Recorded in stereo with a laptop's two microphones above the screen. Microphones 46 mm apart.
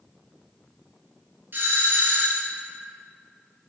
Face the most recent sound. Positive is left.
turn(degrees=-50)  # may be behind; listen again after turning